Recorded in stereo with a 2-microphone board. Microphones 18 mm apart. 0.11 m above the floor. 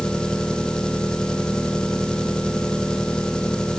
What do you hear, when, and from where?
0.0 s an engine running: 55° left (ahead or behind)